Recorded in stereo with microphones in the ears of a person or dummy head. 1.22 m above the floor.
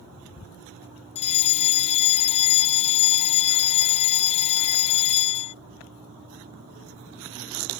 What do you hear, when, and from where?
1.1 s a fire alarm: 35° left (ahead or behind)